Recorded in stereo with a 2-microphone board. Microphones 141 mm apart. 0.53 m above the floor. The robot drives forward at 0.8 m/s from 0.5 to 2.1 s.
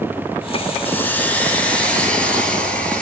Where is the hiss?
15° left (ahead or behind), 1.2 m; by 3.0 s 10° left (ahead or behind), 2 m.